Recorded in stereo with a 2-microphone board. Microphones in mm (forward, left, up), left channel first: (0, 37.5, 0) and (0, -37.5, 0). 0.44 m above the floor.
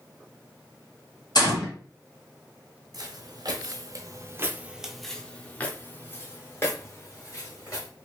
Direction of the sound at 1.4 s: 65° left (ahead or behind).